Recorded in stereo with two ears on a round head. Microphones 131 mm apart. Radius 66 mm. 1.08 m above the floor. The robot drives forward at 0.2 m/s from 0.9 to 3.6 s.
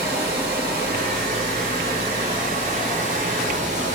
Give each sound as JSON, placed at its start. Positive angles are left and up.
{"t": 0.0, "sound": "running water", "side_deg": -70, "distance_m": 1.2}